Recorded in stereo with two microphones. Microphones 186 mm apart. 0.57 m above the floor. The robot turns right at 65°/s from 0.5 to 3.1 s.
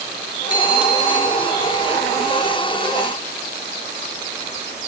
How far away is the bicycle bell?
About 6.5 m.